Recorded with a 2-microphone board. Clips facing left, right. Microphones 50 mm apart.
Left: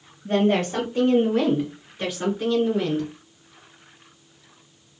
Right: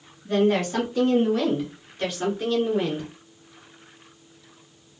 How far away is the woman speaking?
About 1.9 m.